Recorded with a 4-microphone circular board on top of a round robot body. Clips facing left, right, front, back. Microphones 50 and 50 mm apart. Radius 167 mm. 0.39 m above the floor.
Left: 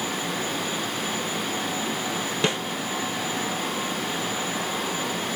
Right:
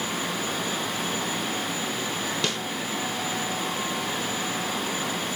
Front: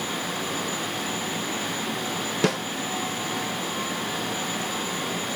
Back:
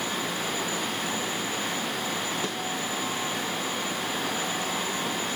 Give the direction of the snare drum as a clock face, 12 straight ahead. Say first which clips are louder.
Left 6 dB, front 8 dB; 11 o'clock.